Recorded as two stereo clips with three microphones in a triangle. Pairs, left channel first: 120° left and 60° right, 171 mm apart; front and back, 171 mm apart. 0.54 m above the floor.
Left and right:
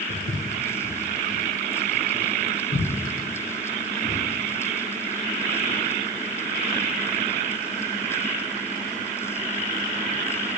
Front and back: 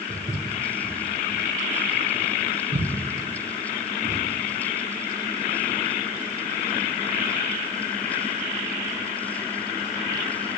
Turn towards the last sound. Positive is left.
turn(degrees=175)